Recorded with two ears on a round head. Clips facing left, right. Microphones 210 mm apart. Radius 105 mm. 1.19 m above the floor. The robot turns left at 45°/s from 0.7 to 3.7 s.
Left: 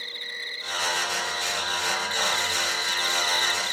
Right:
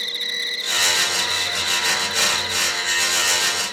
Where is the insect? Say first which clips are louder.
Right 7 dB; 95° right; by 3.7 s 130° left.